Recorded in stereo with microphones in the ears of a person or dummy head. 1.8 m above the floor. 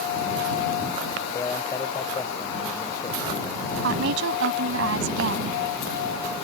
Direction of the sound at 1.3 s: 20° left (ahead or behind).